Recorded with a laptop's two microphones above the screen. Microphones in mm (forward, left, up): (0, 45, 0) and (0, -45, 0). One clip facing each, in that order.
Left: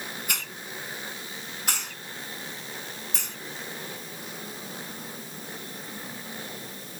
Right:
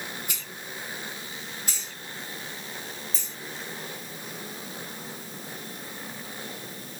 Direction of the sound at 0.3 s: 70° left (ahead or behind).